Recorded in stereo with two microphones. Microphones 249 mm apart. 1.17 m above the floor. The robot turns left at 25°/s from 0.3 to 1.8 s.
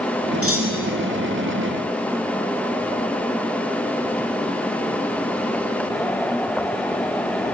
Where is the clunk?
65° right (ahead or behind), 4 m; by 1.1 s 75° right (ahead or behind), 4 m.